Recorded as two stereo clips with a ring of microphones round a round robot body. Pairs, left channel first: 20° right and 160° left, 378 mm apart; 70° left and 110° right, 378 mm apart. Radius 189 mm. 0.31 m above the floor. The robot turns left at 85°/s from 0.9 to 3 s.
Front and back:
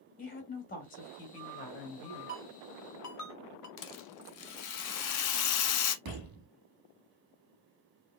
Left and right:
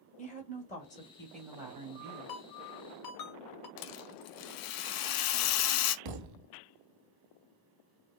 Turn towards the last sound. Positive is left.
turn(degrees=-145)